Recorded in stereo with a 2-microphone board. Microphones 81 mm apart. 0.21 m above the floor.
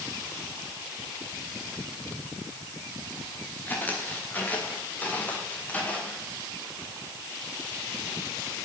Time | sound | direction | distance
3.7 | footsteps | 25° left (ahead or behind) | 7.5 m